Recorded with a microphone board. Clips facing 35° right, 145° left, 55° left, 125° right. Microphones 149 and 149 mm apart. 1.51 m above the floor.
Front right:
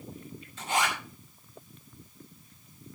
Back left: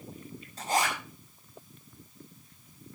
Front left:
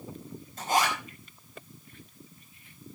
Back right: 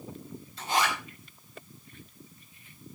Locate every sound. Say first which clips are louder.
0.6 s a zipper: back left 1 dB, front left 2 dB; 95° left, 4.5 m